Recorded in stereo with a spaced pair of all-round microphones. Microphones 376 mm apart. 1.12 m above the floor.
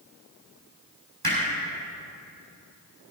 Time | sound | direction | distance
1.2 | hammering | 80° right | 5 m